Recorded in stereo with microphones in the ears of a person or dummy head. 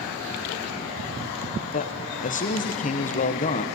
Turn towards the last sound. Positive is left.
turn(degrees=35)  # may be behind; listen again after turning